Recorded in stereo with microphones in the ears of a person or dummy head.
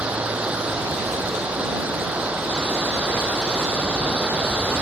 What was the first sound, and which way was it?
Running water, 10° right (ahead or behind).